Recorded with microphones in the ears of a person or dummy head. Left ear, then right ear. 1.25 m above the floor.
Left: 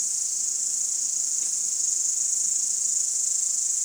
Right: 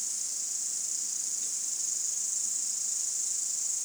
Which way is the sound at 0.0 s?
25° left (ahead or behind).